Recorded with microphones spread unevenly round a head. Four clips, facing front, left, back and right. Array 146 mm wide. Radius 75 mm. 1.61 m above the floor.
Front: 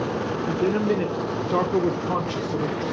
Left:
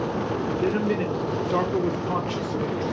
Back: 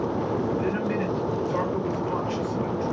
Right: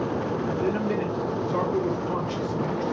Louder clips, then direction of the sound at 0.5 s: Left 3 dB, front 4 dB; 20° left.